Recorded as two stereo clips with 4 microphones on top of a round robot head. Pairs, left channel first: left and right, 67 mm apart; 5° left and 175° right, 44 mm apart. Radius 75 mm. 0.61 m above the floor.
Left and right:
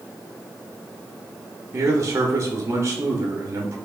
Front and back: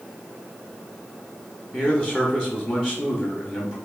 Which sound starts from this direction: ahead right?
A man speaking, at 1.7 s.